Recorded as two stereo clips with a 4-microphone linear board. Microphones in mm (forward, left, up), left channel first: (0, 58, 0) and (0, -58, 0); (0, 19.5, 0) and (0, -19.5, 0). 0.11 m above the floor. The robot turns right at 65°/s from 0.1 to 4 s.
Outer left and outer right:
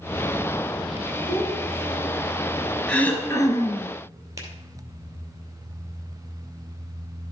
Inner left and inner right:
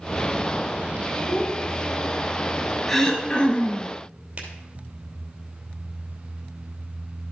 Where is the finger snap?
30° right (ahead or behind), 2.5 m.